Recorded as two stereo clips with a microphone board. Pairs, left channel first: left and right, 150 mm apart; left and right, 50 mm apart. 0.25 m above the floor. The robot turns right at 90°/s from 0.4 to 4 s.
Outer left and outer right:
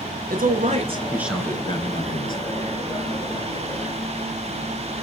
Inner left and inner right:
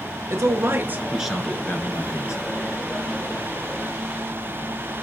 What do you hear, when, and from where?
0.3 s a man speaking: 85° right, 3 m; by 2.4 s 95° left, 3 m